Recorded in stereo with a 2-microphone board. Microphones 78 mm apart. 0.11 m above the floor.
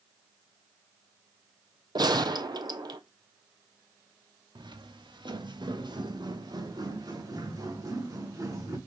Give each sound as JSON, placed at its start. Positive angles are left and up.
{"t": 1.9, "sound": "a gunshot", "side_deg": -70, "distance_m": 0.7}
{"t": 4.5, "sound": "footsteps", "side_deg": -80, "distance_m": 1.6}